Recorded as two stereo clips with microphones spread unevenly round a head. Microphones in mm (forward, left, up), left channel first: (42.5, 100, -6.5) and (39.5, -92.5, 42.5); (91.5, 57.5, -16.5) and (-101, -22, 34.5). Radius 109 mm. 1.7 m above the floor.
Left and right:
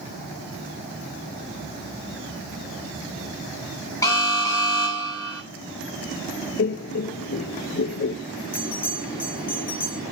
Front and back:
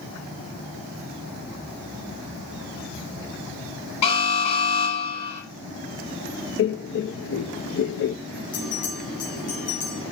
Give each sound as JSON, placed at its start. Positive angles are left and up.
{"t": 4.0, "sound": "an alarm", "azimuth_deg": 15, "distance_m": 9.0}
{"t": 6.6, "sound": "laughter", "azimuth_deg": 55, "distance_m": 0.7}
{"t": 8.5, "sound": "a bell", "azimuth_deg": 45, "distance_m": 8.5}